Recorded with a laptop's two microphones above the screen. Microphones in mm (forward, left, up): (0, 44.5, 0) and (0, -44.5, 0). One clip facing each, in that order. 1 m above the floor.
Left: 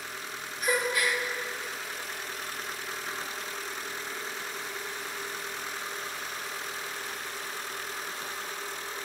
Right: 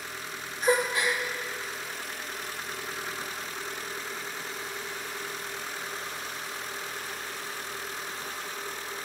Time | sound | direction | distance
0.6 | a gasp | 30° right (ahead or behind) | 1.5 m